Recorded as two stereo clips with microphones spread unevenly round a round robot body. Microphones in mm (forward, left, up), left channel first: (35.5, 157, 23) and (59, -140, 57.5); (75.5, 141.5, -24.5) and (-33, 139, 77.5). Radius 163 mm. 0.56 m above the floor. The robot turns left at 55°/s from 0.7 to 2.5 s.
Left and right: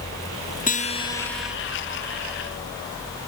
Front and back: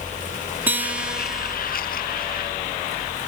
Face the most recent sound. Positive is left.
turn(degrees=-45)